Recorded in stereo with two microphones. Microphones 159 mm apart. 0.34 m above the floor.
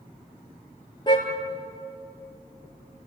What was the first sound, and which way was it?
A car horn, 30° left (ahead or behind).